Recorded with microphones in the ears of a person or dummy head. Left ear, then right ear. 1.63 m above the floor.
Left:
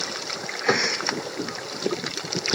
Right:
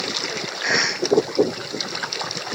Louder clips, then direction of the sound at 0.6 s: Right 2 dB; 30° right (ahead or behind).